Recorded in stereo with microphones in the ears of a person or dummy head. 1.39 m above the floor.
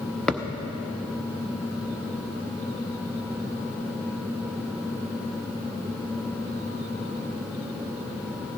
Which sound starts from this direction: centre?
A thud, at 0.3 s.